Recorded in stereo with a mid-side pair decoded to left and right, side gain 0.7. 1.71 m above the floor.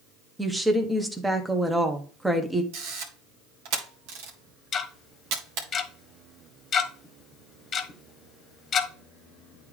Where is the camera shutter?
70° right, 2 m.